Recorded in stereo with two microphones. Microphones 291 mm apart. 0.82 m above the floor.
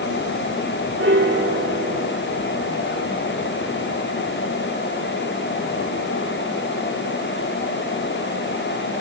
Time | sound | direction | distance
1.0 | a piano | 45° right (ahead or behind) | 3 m